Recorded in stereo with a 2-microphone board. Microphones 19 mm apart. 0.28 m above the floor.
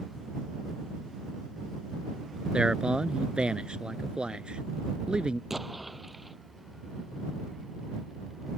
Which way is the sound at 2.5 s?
55° right (ahead or behind).